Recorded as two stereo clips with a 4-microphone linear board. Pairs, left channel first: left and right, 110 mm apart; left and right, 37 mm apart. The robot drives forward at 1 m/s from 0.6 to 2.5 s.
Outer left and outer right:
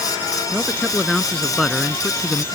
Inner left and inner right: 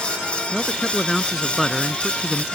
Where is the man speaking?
Centre (ahead or behind).